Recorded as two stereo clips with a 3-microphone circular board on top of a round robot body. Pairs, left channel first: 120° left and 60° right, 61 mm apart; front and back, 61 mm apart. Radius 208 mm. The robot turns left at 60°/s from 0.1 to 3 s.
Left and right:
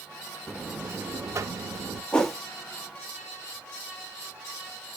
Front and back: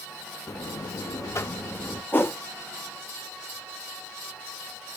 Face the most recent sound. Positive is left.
turn(degrees=-5)